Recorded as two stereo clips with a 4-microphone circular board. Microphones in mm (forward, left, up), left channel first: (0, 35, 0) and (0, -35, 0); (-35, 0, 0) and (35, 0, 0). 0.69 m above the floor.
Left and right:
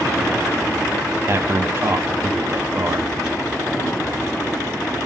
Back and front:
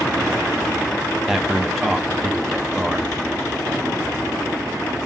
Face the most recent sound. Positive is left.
turn(degrees=-85)